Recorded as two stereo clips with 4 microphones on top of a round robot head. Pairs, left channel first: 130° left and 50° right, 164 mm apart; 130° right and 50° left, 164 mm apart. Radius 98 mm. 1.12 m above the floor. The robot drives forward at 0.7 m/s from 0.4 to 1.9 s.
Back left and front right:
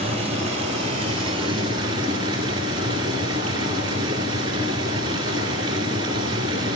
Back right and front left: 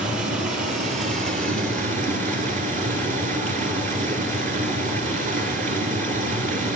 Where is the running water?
5° left, 2.5 m; by 6.8 s 10° left, 1.6 m.